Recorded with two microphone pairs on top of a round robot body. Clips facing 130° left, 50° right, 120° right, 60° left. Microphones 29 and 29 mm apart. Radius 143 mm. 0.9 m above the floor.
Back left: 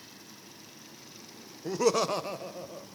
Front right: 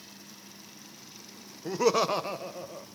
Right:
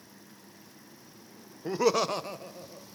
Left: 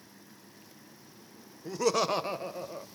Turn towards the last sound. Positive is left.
turn(degrees=25)